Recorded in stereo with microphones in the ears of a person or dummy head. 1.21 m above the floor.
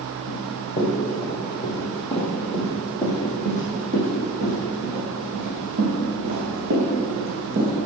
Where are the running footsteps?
35° left (ahead or behind), 2.5 m; by 7.8 s 60° right (ahead or behind), 4 m.